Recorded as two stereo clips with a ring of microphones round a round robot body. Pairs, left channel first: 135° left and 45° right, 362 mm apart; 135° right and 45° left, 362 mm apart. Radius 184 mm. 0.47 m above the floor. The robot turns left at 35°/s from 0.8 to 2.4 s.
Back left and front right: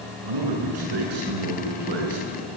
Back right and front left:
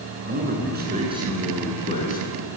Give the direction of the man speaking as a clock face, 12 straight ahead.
1 o'clock.